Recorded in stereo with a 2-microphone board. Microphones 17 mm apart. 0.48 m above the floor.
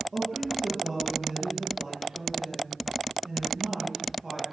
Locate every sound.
0.1 s a woman speaking: 25° right (ahead or behind), 9.5 m